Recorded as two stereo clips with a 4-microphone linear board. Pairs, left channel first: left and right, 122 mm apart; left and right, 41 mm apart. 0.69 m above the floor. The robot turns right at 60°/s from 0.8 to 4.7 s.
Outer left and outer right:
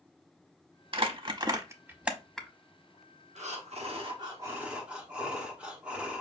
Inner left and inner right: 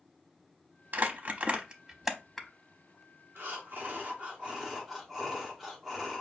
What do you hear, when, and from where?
0.9 s crumpling: 45° right (ahead or behind), 0.7 m; by 2.5 s 10° left (ahead or behind), 0.7 m
3.4 s breathing: 90° right, 1.1 m; by 6.2 s 10° right, 1.1 m